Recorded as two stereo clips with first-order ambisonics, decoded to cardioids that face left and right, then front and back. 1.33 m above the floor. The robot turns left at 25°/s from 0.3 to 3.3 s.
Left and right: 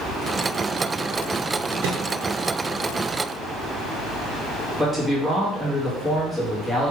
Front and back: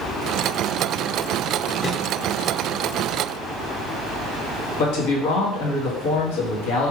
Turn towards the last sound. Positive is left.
turn(degrees=-15)